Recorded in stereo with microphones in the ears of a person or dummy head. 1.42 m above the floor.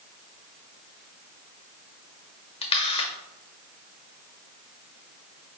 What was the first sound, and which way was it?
A camera shutter, 25° left (ahead or behind).